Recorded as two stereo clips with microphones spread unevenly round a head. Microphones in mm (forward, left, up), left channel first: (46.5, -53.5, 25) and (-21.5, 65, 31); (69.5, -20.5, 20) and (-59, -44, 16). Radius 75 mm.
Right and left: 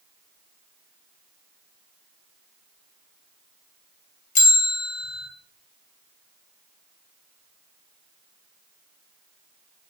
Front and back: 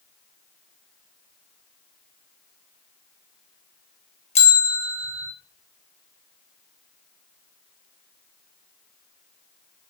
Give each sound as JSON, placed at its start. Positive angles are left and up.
{"t": 4.3, "sound": "a bell", "azimuth_deg": -30, "distance_m": 0.7}